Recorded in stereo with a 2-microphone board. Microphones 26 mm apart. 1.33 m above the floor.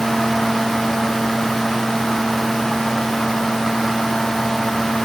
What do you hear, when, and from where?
Only background noise.